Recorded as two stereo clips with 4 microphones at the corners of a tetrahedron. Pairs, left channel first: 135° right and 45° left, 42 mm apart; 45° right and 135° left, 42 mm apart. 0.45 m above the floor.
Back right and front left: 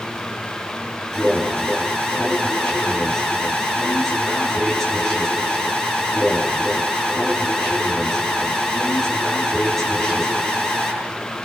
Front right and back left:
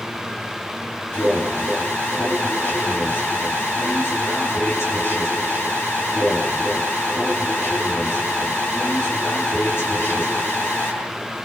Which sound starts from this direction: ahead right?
An alarm, at 1.1 s.